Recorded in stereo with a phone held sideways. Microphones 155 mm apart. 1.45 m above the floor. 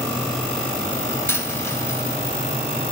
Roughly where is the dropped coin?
Centre.